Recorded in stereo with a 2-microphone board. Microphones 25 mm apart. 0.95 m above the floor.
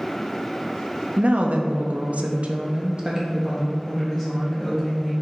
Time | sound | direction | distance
1.2 | a woman speaking | 60° right (ahead or behind) | 0.9 m